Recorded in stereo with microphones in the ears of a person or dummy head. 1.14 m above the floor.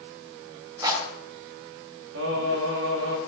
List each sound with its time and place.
0.8 s a rattle: 20° right (ahead or behind), 3 m
2.1 s singing: 70° right (ahead or behind), 2 m